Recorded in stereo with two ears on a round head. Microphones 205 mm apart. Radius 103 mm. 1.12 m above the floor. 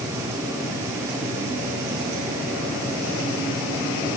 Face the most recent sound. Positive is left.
No sound to turn to.